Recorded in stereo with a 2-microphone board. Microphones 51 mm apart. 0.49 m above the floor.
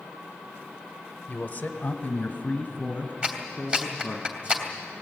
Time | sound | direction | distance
1.3 | a man speaking | 35° left (ahead or behind) | 1.1 m
3.2 | a clap | 20° right (ahead or behind) | 2.5 m